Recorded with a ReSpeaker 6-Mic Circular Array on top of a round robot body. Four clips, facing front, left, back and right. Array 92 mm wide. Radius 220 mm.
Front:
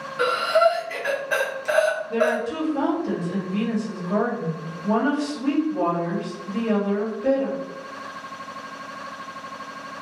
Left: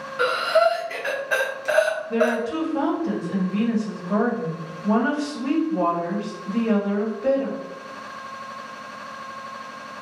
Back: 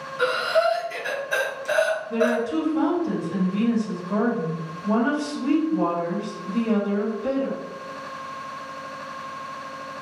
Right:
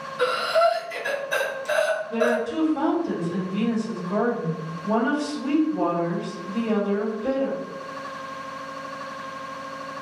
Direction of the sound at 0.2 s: 60° left.